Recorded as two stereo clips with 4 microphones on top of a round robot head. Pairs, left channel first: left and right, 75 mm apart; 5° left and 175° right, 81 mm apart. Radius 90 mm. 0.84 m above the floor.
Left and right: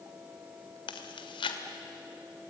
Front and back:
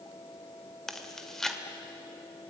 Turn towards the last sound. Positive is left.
turn(degrees=90)